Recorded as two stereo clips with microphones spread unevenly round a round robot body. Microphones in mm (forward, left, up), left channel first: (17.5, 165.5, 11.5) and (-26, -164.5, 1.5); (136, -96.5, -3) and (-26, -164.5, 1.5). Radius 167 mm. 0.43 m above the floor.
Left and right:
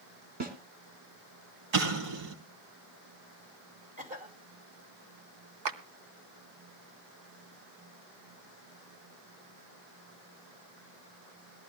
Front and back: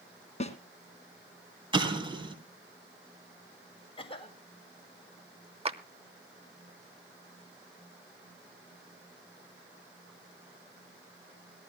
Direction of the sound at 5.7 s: 100° right.